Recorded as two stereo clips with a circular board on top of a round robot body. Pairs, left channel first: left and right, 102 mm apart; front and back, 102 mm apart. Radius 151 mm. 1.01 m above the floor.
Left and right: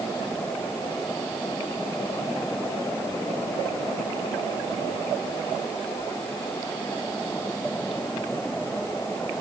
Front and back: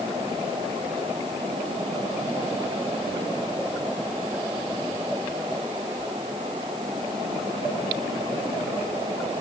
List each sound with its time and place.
Only background noise.